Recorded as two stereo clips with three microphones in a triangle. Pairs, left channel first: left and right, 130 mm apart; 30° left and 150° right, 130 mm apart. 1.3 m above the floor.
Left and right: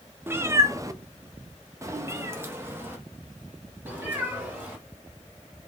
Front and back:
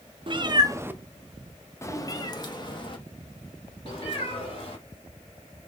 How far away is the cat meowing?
About 0.6 m.